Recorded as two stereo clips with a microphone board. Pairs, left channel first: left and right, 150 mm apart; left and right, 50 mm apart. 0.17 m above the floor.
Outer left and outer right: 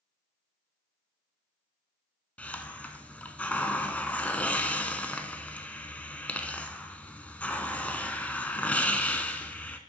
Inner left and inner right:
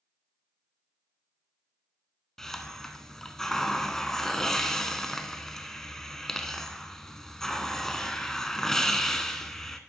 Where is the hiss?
10° left (ahead or behind), 0.6 m.